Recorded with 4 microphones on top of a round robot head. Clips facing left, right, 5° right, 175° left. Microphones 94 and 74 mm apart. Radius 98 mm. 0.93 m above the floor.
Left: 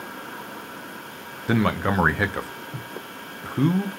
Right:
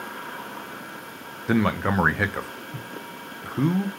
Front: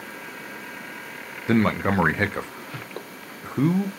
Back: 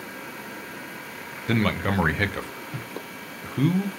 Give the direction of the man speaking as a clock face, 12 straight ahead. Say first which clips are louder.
Even, front 3 dB; 12 o'clock.